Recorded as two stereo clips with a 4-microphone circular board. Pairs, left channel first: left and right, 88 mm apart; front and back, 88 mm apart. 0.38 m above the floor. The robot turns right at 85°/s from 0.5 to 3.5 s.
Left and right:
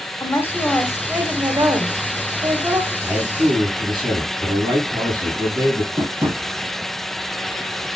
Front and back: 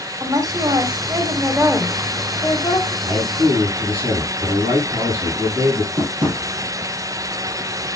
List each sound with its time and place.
0.2 s a woman speaking: 150° left, 2 m; by 2.9 s 5° right, 2 m
3.0 s a man speaking: 170° right, 6 m; by 5.9 s 130° right, 6 m
6.0 s tapping: 150° right, 3.5 m